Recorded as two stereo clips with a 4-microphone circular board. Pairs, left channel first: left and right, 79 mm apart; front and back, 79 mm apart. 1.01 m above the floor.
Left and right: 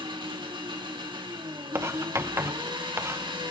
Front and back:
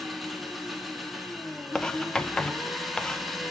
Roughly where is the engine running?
Right.